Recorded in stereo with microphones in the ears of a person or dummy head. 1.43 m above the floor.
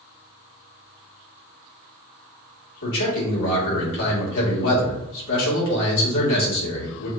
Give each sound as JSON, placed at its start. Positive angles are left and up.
{"t": 2.8, "sound": "a man speaking", "side_deg": 70, "distance_m": 2.5}